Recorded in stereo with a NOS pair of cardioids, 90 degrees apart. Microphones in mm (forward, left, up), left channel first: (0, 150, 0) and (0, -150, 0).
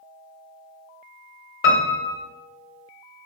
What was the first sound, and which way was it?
A piano, 45° left.